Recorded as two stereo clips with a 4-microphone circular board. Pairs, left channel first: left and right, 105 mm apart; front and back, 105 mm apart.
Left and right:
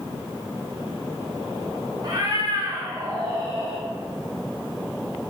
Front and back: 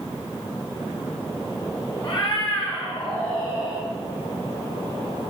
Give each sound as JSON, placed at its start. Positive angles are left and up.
{"t": 2.0, "sound": "a cat meowing", "azimuth_deg": -40, "distance_m": 1.2}